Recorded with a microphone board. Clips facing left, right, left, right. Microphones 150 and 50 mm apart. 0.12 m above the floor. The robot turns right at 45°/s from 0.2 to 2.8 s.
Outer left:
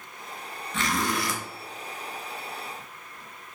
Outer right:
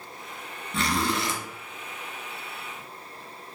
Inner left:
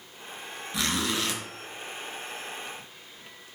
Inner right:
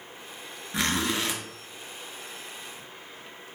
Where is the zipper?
40° right (ahead or behind), 0.7 m; by 1.4 s 20° right (ahead or behind), 0.7 m.